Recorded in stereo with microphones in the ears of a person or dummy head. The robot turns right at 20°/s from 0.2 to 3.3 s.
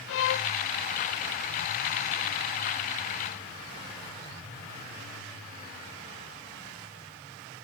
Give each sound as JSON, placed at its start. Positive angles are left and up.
{"t": 0.1, "sound": "a violin", "side_deg": 75, "distance_m": 0.6}